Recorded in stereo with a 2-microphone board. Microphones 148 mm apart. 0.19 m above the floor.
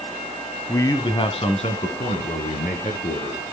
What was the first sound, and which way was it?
A man speaking, 15° left (ahead or behind).